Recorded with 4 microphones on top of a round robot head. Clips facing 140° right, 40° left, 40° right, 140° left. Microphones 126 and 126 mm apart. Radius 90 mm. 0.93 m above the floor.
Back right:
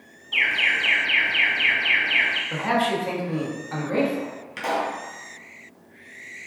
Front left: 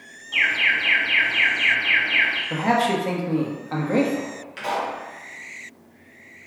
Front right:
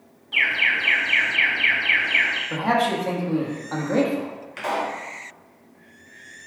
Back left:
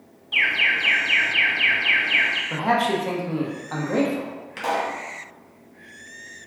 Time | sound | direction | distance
0.3 | an alarm | 175° left | 1.1 m
2.5 | a man speaking | 50° left | 1.1 m
4.6 | a pop | 170° right | 1.6 m